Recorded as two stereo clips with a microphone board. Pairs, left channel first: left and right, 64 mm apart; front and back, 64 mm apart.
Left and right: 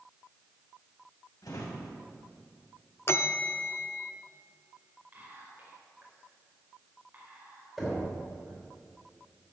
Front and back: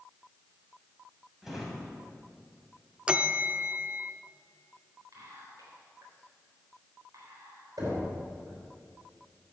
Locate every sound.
1.4 s a drawer: 95° left, 2.5 m
3.1 s a bell: 115° left, 0.5 m
5.1 s whispering: 150° right, 4 m
7.8 s knocking: straight behind, 4.5 m